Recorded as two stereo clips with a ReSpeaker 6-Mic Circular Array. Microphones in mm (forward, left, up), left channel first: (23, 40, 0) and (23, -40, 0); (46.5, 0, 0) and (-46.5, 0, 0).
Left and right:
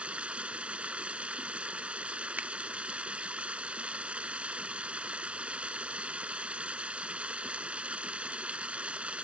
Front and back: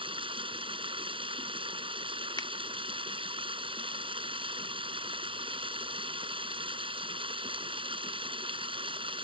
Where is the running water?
165° right.